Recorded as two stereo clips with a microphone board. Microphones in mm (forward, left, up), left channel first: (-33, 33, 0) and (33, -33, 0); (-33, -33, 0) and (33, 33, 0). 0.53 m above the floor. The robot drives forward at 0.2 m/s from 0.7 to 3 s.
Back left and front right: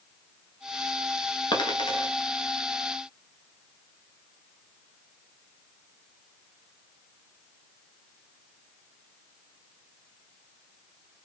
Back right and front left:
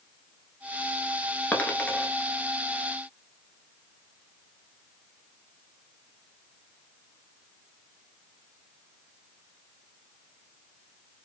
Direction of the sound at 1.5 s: 155° left.